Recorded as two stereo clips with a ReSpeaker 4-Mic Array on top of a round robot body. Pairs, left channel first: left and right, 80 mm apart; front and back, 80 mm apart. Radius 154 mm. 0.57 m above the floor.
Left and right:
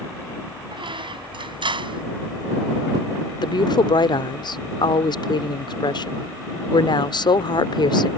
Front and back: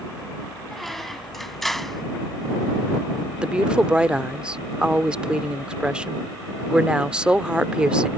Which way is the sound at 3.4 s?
100° left.